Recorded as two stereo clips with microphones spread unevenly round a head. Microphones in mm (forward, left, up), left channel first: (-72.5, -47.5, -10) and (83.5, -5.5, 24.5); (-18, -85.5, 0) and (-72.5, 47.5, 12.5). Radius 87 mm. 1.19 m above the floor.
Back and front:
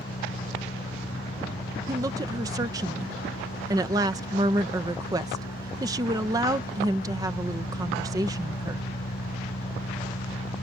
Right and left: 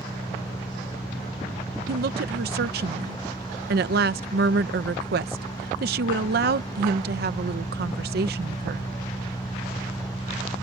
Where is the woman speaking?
90° left.